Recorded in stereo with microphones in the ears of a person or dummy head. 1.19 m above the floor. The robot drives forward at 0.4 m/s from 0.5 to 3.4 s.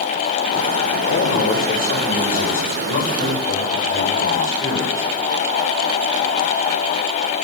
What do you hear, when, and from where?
1.1 s a man speaking: 45° left (ahead or behind), 5.5 m; by 5.1 s 40° left (ahead or behind), 6 m